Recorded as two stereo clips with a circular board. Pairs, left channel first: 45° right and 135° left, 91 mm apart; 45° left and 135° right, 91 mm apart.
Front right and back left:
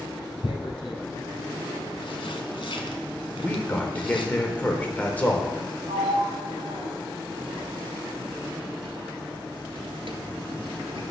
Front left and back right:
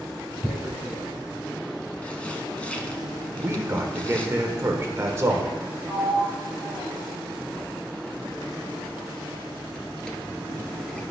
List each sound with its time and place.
0.4 s tearing paper: 30° right, 1.1 m
3.4 s a man speaking: 105° right, 1.0 m
5.9 s a sliding door: 125° left, 1.2 m